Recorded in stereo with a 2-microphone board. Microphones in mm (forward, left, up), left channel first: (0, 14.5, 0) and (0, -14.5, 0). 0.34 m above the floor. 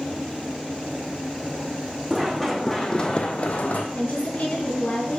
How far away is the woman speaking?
About 3.5 m.